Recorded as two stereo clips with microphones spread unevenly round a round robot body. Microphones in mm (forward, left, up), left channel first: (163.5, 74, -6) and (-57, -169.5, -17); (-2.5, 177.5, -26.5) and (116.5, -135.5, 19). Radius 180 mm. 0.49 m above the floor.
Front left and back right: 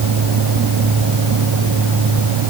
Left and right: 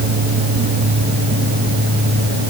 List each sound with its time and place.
Only background noise.